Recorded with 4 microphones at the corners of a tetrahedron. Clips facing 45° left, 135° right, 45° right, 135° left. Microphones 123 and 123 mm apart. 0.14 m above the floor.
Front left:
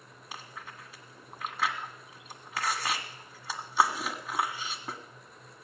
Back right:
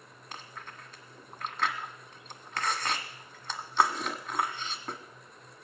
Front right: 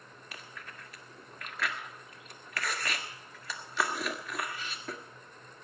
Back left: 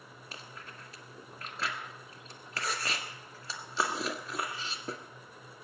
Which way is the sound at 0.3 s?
125° left.